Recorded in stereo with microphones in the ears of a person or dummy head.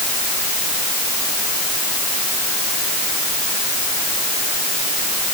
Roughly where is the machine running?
I don't hear a machine running.